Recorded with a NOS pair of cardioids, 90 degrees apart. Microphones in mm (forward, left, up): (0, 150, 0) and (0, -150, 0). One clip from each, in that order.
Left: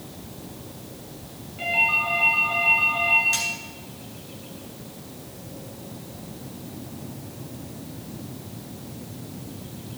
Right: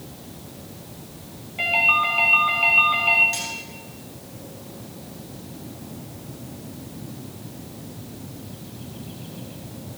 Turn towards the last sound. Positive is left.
turn(degrees=25)